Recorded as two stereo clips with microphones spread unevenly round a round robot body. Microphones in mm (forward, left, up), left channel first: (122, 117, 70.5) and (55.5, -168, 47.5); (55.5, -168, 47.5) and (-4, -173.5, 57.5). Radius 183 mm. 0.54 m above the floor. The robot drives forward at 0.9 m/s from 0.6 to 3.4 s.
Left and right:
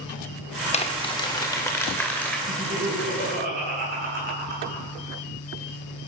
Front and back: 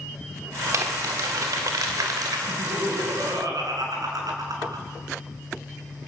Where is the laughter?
170° right, 6 m.